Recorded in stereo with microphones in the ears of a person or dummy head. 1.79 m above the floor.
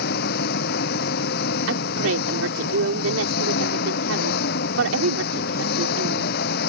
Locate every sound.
0.0 s an engine running: 60° left (ahead or behind)
1.7 s a woman speaking: 85° right